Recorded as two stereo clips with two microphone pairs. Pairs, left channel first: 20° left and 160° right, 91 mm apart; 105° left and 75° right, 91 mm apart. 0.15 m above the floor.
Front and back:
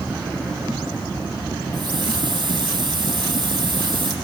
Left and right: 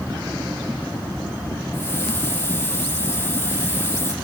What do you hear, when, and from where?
1.7 s a hiss: 170° left, 4.5 m